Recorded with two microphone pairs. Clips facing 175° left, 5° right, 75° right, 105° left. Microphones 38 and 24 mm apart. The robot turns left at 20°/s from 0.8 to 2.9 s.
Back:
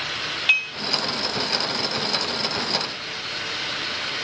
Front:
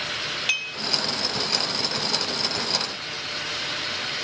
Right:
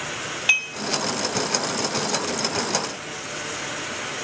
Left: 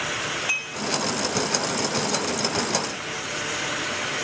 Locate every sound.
0.5 s dishes clattering: 115° right, 2.5 m